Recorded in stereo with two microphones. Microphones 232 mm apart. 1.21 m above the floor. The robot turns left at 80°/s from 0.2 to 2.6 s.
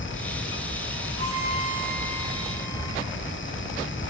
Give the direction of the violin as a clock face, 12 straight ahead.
2 o'clock.